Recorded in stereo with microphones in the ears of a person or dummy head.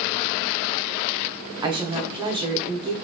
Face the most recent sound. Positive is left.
turn(degrees=-20)  # may be behind; listen again after turning